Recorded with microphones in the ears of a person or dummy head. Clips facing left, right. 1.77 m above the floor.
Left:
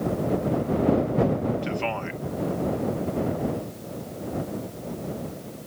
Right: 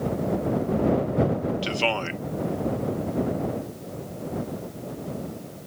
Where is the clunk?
No clunk in this recording.